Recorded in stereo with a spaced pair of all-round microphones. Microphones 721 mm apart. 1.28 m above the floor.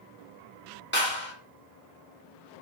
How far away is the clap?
About 1.7 m.